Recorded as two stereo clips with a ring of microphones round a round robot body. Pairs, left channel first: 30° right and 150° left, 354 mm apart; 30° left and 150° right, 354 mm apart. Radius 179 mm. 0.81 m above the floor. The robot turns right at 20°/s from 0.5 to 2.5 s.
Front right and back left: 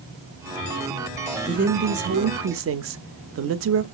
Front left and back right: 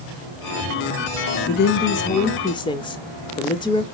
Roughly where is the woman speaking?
Left.